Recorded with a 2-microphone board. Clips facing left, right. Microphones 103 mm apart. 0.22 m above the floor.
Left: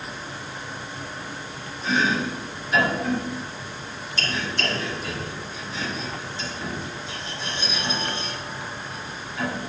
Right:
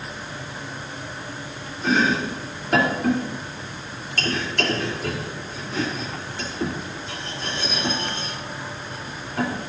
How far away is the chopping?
About 3.5 m.